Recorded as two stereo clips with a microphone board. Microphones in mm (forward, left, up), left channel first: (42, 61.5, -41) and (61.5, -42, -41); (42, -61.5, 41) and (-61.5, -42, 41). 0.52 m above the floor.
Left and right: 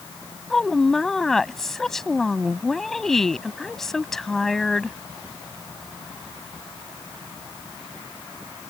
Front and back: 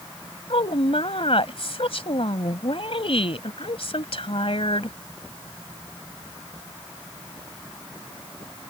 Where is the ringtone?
I don't hear a ringtone.